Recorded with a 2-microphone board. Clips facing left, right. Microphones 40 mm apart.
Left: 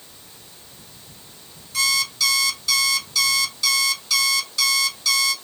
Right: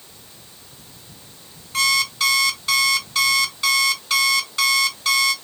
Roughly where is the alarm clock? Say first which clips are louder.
Right 3 dB; right.